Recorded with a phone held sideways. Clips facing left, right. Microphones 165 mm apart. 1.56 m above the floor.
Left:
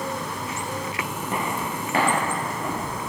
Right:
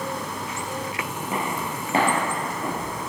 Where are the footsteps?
5° right (ahead or behind), 1.8 m; by 3.0 s 50° right (ahead or behind), 3.5 m.